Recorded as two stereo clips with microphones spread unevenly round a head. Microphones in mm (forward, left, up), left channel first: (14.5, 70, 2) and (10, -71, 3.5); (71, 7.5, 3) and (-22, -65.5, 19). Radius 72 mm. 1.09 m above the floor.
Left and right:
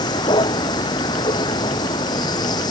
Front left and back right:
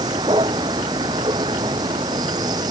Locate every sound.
0.0 s a vehicle: 155° left